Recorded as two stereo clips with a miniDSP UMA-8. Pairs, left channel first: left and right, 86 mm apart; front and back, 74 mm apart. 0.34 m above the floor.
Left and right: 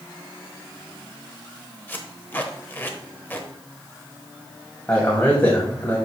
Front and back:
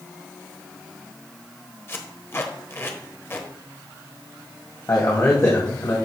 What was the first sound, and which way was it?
Tape being pulled, 35° left.